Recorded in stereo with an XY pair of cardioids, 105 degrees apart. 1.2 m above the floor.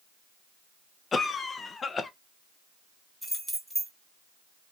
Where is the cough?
40° left, 0.7 m.